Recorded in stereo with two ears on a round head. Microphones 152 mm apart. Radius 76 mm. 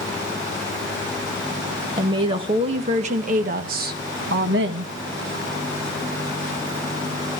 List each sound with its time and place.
2.0 s a woman speaking: 25° right (ahead or behind), 1.6 m; by 4.9 s 70° right (ahead or behind), 1.4 m